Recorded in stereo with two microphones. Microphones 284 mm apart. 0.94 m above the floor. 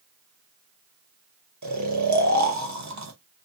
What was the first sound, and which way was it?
Snoring, 75° right (ahead or behind).